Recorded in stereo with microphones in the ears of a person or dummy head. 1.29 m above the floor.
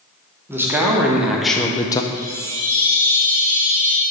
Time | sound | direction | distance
0.5 | a man speaking | 10° right (ahead or behind) | 1.3 m
2.1 | a chime | 35° right (ahead or behind) | 1.0 m